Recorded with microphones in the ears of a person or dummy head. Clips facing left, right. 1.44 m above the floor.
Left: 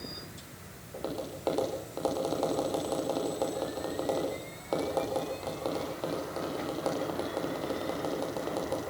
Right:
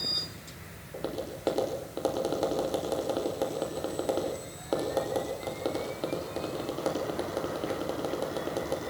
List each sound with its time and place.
0.9 s tapping: 10° right (ahead or behind), 5.5 m